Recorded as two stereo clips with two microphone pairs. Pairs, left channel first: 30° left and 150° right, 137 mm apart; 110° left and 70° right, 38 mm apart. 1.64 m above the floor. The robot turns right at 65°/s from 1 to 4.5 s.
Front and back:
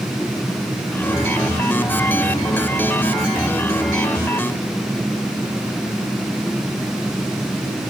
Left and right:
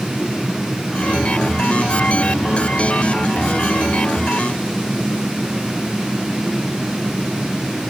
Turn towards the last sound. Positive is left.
No sound to turn to.